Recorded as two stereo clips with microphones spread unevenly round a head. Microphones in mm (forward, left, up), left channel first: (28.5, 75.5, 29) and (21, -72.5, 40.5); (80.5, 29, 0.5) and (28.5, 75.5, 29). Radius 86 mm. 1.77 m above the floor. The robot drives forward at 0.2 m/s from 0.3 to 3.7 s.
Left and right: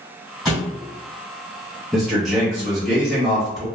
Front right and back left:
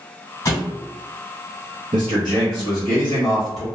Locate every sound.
0.5 s a thud: 20° right, 1.6 m
1.9 s a man speaking: 175° left, 0.5 m; by 3.6 s straight behind, 0.9 m